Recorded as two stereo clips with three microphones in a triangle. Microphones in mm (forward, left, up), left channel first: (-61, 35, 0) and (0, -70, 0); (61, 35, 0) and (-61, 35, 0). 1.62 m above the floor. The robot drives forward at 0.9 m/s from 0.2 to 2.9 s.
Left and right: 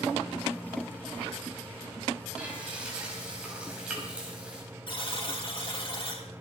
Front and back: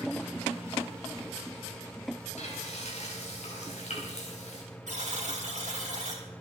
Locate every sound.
2.4 s frying: 20° left, 4.5 m
4.9 s a buzzer: 165° left, 3 m